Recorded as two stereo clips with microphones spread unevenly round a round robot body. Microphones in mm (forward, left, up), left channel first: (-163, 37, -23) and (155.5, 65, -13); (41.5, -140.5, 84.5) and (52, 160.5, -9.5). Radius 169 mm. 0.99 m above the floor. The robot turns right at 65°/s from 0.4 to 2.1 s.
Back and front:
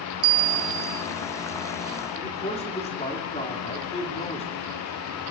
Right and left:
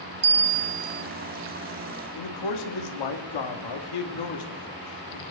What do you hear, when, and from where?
0.2 s a bell: 35° left, 0.7 m; by 1.0 s 80° left, 0.7 m
2.1 s a man speaking: 105° right, 2.5 m